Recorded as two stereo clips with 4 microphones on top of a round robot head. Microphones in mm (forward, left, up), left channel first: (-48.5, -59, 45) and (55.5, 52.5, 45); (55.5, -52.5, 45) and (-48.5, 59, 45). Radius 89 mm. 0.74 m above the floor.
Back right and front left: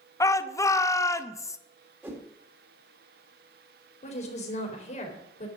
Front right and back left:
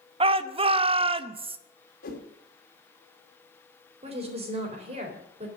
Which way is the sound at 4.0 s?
175° right.